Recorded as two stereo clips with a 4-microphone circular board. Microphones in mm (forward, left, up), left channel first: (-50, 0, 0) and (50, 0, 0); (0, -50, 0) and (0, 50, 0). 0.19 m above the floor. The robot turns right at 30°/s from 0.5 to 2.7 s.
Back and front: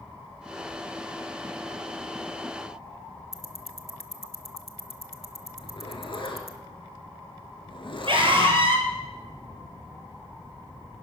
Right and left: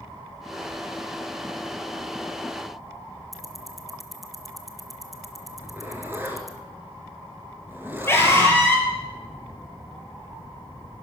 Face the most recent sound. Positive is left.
turn(degrees=-25)